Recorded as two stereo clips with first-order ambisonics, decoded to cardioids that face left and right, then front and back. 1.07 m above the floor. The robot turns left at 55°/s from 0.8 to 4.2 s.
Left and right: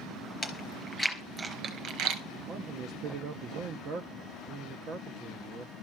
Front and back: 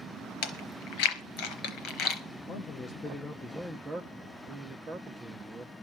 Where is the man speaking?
40° right, 0.8 m; by 5.7 s 130° right, 0.8 m.